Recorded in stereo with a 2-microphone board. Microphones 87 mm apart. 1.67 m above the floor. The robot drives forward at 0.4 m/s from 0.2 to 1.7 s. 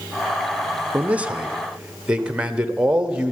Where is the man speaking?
20° right (ahead or behind), 0.7 m; by 3.3 s 10° right (ahead or behind), 1.0 m.